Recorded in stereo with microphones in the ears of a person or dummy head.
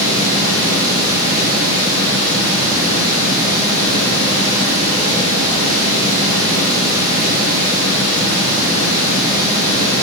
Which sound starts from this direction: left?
Running water, at 0.0 s.